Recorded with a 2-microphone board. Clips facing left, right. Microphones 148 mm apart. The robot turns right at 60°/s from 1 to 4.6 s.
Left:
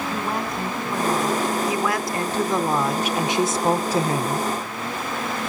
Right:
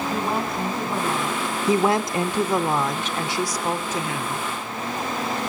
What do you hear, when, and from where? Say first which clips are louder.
0.1 s a woman speaking: right 1 dB; 5° right, 3.5 m; by 1.6 s 30° left, 3.5 m
1.7 s a woman speaking: right 4 dB; 65° right, 0.9 m; by 4.5 s 105° left, 0.9 m